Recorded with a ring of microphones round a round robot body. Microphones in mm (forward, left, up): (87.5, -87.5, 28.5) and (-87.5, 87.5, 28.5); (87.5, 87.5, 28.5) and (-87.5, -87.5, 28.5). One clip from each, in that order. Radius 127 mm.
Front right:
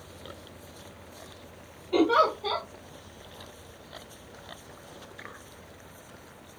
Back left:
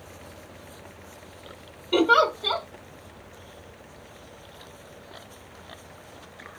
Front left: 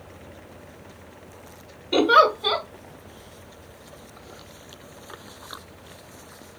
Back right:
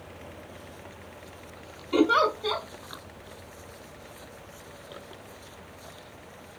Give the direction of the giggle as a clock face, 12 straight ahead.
8 o'clock.